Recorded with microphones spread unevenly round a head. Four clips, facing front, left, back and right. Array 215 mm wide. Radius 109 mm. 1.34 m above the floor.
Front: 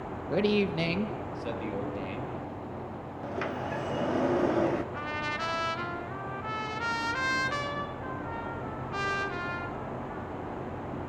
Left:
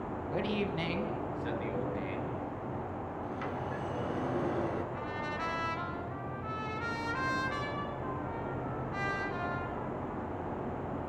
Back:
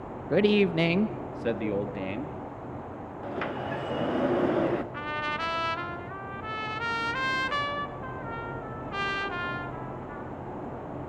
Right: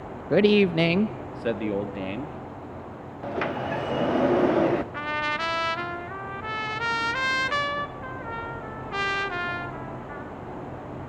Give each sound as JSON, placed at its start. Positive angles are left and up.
{"t": 0.3, "sound": "a man speaking", "azimuth_deg": -105, "distance_m": 0.9}
{"t": 3.2, "sound": "a sliding door", "azimuth_deg": -100, "distance_m": 1.3}
{"t": 4.9, "sound": "a trumpet", "azimuth_deg": -95, "distance_m": 1.9}